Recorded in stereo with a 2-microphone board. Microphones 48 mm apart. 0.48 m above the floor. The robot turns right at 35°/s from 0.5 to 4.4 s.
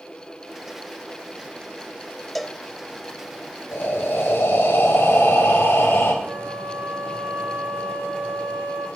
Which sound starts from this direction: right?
A flute, at 6.2 s.